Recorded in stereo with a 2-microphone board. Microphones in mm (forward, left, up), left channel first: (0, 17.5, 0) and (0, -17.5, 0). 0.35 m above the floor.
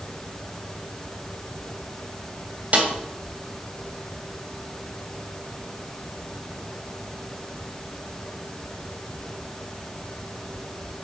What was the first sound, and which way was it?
A snare drum, 45° right (ahead or behind).